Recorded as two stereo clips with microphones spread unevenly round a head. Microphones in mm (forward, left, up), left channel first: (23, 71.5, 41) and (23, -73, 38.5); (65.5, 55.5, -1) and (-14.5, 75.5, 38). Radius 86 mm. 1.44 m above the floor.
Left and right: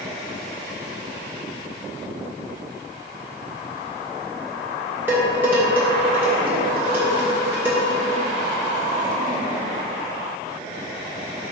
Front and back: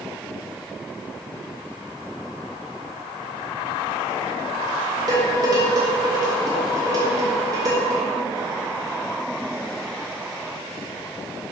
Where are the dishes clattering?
170° right, 1.0 m.